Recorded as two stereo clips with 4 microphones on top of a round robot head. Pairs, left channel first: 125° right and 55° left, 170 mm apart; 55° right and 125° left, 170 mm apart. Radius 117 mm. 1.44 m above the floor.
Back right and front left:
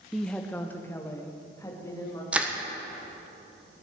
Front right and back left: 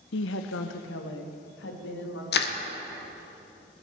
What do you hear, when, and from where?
0.1 s a woman speaking: 35° right, 0.5 m; by 2.2 s 55° right, 2.5 m
2.3 s crushing: 30° right, 1.3 m